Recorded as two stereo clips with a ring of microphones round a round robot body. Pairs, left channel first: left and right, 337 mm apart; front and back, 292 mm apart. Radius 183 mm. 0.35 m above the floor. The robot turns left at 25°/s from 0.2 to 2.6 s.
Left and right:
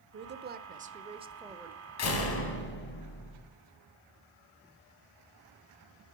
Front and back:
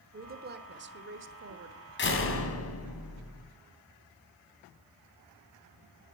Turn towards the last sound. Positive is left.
turn(degrees=35)